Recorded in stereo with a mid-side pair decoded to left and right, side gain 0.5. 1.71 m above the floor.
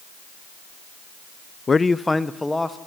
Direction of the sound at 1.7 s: 30° left.